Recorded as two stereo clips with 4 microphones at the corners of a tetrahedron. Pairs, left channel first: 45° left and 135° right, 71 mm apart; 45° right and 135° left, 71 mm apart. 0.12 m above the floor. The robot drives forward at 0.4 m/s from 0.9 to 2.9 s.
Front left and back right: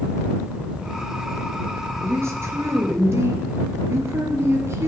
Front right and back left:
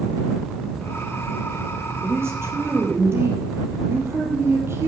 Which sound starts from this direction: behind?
A woman speaking, at 2.0 s.